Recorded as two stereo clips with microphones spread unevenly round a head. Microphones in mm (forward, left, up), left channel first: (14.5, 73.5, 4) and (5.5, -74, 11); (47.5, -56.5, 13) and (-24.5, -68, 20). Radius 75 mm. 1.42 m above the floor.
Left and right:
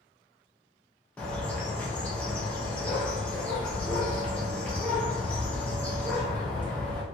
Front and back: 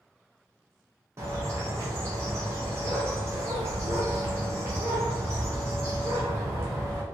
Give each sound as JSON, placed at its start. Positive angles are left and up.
{"t": 1.2, "sound": "a bird", "azimuth_deg": 165, "distance_m": 0.7}